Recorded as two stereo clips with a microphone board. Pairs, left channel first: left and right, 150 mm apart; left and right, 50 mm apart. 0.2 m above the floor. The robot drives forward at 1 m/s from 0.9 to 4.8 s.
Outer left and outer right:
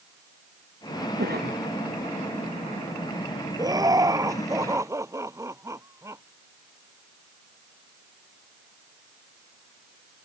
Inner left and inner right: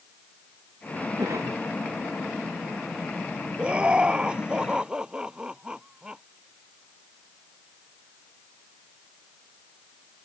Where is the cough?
85° right.